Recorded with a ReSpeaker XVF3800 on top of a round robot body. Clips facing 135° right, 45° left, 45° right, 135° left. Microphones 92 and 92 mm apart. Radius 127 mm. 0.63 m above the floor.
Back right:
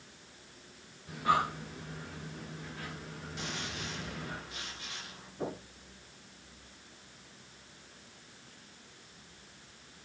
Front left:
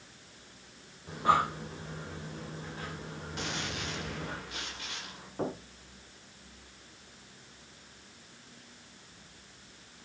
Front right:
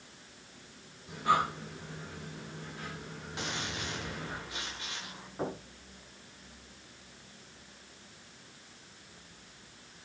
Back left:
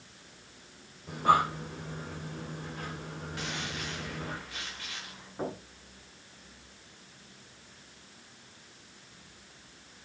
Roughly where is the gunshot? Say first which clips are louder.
Front left 3 dB, front right 1 dB; ahead left.